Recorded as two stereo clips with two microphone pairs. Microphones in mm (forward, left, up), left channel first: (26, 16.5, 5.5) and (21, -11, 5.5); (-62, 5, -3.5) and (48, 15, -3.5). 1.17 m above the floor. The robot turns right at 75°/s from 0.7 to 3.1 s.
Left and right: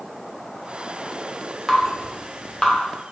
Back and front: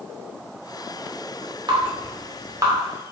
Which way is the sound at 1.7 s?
15° right.